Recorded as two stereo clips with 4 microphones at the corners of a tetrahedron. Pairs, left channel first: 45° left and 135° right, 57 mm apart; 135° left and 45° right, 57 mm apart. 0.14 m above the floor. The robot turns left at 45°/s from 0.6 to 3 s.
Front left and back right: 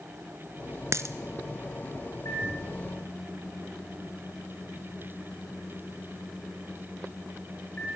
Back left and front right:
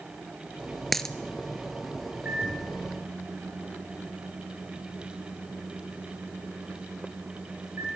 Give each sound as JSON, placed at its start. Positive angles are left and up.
{"t": 0.9, "sound": "a dropped coin", "azimuth_deg": -140, "distance_m": 0.9}
{"t": 2.2, "sound": "a microwave", "azimuth_deg": 15, "distance_m": 9.5}